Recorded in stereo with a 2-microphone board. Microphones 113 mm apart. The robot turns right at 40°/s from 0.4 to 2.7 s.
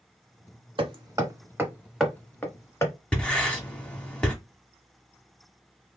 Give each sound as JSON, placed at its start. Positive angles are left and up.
{"t": 0.8, "sound": "hammering", "side_deg": -50, "distance_m": 0.9}
{"t": 3.1, "sound": "writing", "side_deg": 10, "distance_m": 1.0}